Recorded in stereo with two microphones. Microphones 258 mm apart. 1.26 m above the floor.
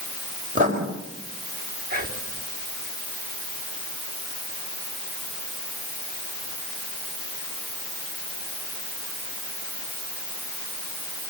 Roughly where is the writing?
Right.